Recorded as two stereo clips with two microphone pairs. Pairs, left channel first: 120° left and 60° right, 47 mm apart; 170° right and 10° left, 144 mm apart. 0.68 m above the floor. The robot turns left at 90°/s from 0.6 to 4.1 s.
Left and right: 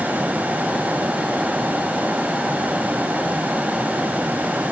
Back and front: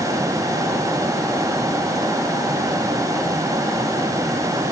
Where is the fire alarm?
I don't hear a fire alarm.